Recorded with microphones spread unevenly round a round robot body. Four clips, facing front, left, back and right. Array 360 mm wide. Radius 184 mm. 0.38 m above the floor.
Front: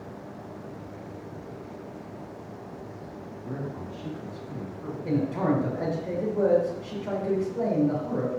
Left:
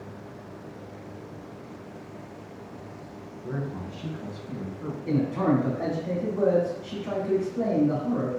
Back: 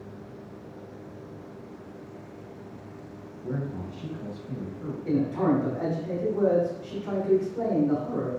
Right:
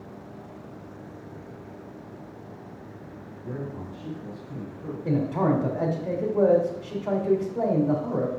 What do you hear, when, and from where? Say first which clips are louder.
3.4 s a man speaking: left 1 dB, back 3 dB; 160° left, 2.5 m; by 5.0 s 125° left, 2 m
5.0 s a man speaking: even, back 1 dB; 70° right, 2.5 m